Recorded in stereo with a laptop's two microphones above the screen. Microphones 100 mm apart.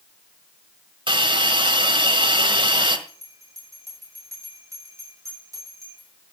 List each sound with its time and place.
1.1 s a hiss: 60° right (ahead or behind), 1.5 m
3.1 s a bell: 35° right (ahead or behind), 6 m